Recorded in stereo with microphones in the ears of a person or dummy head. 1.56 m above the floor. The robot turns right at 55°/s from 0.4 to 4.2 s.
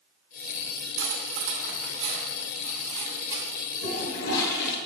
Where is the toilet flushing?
40° left (ahead or behind), 1.0 m; by 4.8 s 60° left (ahead or behind), 1.0 m.